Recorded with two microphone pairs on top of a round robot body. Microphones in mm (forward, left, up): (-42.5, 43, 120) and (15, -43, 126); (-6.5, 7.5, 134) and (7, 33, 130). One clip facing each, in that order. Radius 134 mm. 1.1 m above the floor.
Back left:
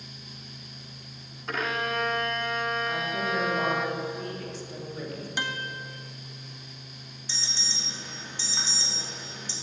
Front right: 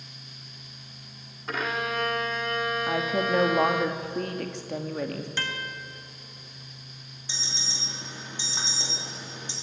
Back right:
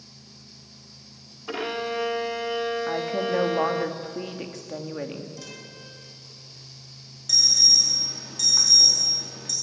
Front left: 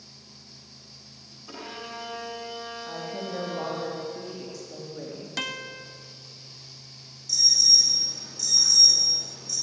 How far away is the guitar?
About 1.2 m.